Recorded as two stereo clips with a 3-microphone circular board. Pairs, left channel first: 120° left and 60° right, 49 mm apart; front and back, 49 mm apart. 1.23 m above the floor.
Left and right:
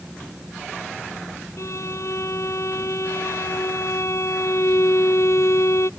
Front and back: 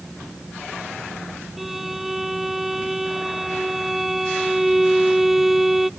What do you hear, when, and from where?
1.6 s a violin: 95° left